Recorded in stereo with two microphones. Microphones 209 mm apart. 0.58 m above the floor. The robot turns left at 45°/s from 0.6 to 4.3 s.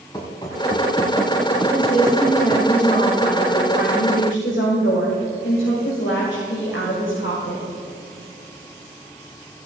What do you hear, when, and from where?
0.1 s running footsteps: 20° left (ahead or behind), 2.5 m; by 2.7 s 10° right (ahead or behind), 1.0 m
1.7 s a woman speaking: 160° right, 2.5 m; by 7.6 s 85° left, 2.5 m